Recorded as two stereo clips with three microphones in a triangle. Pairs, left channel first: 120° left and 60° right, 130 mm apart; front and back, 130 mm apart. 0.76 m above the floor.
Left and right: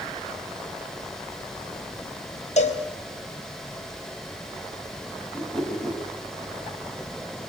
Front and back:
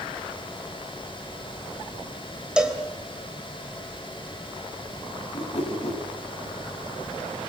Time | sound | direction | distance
2.6 | a cowbell | 95° left | 3 m
5.3 | a whoosh | 35° left | 5 m